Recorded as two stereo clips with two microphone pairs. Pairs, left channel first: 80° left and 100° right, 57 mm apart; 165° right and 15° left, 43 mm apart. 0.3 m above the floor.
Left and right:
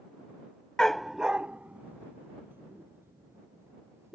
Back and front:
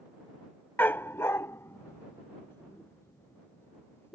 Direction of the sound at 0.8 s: 160° left.